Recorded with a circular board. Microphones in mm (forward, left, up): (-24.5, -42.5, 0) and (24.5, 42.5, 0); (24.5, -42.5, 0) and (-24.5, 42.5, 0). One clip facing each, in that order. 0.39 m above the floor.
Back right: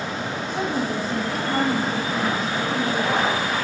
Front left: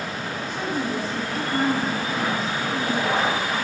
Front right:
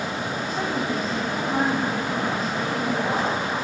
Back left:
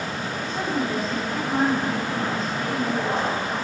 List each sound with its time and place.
0.5 s a woman speaking: 140° right, 3.5 m